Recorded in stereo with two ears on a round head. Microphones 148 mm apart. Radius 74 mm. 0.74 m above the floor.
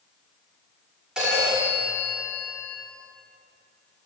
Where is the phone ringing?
5° right (ahead or behind), 1.3 m.